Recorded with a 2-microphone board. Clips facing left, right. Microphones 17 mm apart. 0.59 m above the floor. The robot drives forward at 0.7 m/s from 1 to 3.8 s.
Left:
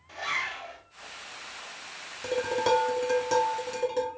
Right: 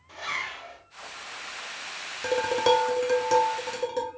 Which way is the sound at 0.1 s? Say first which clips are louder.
Left 1 dB; centre (ahead or behind).